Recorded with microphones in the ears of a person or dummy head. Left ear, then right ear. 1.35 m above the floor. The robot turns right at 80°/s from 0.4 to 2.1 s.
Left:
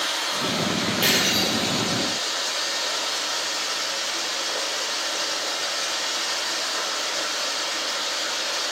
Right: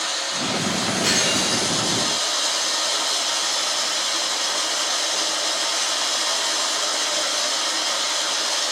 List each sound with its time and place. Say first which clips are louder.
0.0 s running water: even; 155° left, 5.5 m; by 8.7 s 65° right, 5.5 m
1.0 s breaking glass: even; 145° left, 6 m; by 1.5 s 170° right, 6 m